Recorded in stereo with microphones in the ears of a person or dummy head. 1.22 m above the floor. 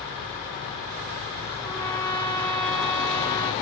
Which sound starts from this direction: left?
A trumpet, at 1.6 s.